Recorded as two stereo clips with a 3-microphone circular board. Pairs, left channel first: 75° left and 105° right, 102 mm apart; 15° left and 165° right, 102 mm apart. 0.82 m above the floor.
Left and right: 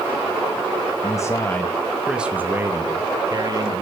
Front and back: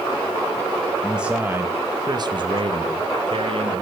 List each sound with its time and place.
1.0 s a man speaking: 110° left, 0.8 m; by 3.8 s 145° right, 1.4 m